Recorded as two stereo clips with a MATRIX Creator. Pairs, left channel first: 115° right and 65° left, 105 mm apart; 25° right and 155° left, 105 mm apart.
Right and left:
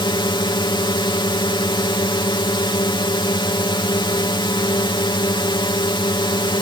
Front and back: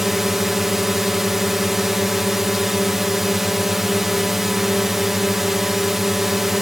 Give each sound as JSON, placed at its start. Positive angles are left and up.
{"t": 0.0, "sound": "a drone", "azimuth_deg": -115}